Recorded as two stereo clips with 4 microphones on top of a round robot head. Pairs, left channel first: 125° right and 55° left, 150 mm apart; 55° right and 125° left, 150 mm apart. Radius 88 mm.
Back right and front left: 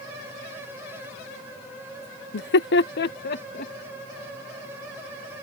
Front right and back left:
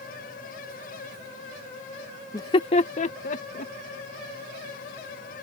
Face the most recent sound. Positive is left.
turn(degrees=-95)